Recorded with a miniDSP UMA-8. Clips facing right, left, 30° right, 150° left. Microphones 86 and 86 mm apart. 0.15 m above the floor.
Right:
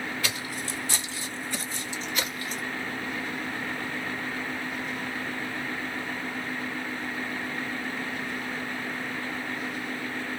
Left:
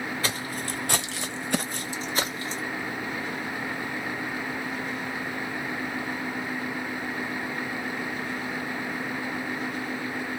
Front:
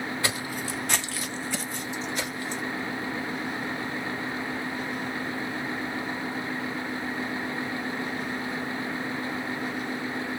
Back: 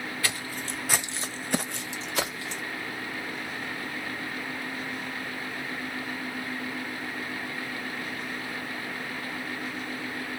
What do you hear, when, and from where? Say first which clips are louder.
0.2 s footsteps: left 2 dB, front 3 dB; 35° left, 0.8 m; by 2.6 s 155° left, 1.0 m